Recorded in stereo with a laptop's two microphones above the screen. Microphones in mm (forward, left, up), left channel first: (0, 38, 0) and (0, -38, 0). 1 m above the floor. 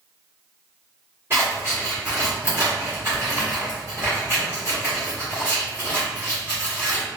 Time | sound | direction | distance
1.3 | scissors | 35° right (ahead or behind) | 1.7 m